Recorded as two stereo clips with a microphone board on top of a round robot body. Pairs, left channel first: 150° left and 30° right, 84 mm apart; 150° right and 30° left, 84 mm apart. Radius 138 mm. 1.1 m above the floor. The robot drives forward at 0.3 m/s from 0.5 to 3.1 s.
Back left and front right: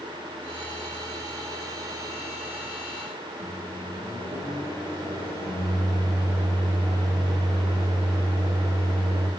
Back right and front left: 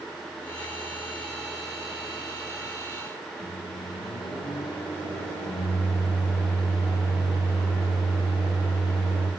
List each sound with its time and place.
3.4 s a microwave: 150° right, 1.7 m